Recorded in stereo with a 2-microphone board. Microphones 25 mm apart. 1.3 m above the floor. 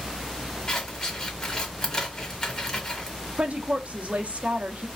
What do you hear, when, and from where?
0.7 s scissors: 25° left (ahead or behind), 1.2 m
3.4 s a woman speaking: 55° right (ahead or behind), 0.8 m